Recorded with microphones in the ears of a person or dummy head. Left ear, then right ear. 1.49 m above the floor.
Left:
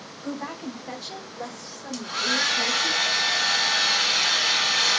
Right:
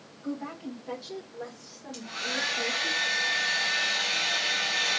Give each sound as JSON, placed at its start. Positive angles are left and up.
{"t": 0.2, "sound": "a woman speaking", "side_deg": 80, "distance_m": 2.5}
{"t": 1.9, "sound": "a hair dryer", "side_deg": 45, "distance_m": 2.0}